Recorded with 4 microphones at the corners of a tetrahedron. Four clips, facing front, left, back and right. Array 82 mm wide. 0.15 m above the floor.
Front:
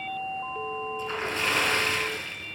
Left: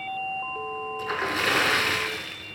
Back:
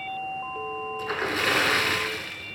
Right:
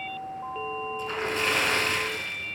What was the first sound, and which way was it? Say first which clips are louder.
A splash: left 3 dB, back 4 dB; 135° left.